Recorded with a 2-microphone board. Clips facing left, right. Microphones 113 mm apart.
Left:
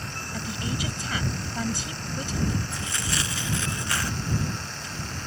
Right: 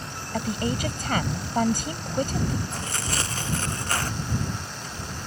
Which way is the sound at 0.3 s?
55° right (ahead or behind).